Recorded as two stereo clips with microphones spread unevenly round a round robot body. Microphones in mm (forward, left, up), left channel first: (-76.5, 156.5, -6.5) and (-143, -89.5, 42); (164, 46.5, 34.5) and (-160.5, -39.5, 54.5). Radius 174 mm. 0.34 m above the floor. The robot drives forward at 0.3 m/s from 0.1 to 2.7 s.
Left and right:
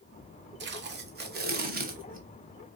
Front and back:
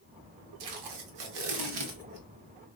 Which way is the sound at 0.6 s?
160° right.